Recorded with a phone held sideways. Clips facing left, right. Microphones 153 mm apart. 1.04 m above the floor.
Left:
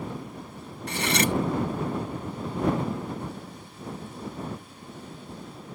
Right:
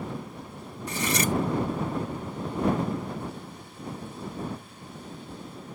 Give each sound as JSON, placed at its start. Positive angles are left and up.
{"t": 0.9, "sound": "cutlery clinking", "side_deg": 70}